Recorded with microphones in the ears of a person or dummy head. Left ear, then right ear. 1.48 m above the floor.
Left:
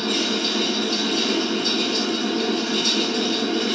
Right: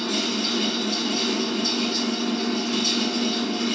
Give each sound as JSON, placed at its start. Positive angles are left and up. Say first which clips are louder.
{"t": 0.0, "sound": "a fan", "louder": "left 3 dB", "side_deg": 0, "distance_m": 1.7}